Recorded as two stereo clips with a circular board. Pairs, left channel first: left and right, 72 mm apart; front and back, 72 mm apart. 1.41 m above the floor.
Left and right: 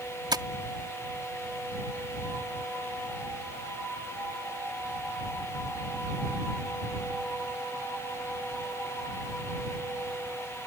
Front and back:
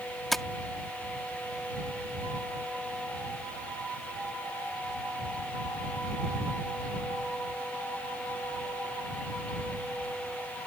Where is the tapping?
90° right.